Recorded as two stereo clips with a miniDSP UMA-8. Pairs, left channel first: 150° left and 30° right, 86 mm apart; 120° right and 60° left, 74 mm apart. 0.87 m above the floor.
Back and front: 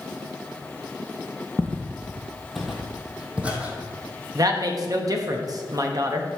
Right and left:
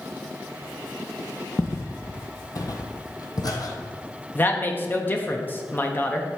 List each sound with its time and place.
1.6 s footsteps: 155° right, 1.1 m; by 3.7 s 100° right, 1.6 m
4.3 s a woman speaking: 65° right, 1.0 m